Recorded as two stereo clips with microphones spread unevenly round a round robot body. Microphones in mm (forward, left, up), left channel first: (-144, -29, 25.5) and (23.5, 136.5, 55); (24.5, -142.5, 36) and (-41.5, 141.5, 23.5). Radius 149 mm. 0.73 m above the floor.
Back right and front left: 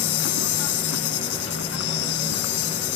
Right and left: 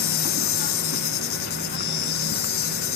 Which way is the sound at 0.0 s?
125° right.